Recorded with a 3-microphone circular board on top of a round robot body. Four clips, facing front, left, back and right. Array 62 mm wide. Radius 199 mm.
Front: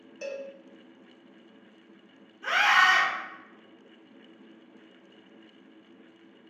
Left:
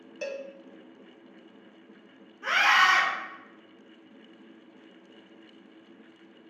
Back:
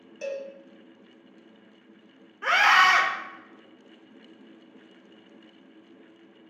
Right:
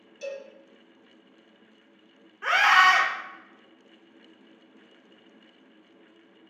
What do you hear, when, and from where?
0.2 s a cowbell: 90° left, 0.8 m
2.4 s a scream: 140° right, 1.7 m